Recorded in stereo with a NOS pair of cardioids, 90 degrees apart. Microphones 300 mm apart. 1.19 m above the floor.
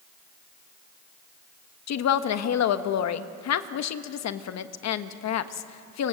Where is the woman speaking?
60° left, 1.3 m.